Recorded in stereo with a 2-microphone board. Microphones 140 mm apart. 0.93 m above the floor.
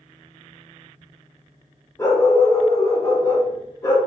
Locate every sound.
2.0 s a dog barking: 25° left (ahead or behind), 0.8 m